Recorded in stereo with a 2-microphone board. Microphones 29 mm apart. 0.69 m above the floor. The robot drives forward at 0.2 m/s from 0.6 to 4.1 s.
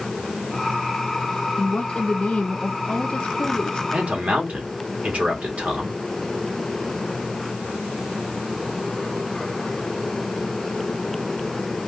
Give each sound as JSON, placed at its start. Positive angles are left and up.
{"t": 1.6, "sound": "a woman speaking", "side_deg": 30, "distance_m": 0.5}
{"t": 3.9, "sound": "a man speaking", "side_deg": -50, "distance_m": 1.2}